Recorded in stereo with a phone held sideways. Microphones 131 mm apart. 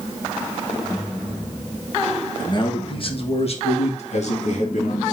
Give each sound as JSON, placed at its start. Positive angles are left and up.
{"t": 2.4, "sound": "a man speaking", "side_deg": 30, "distance_m": 1.6}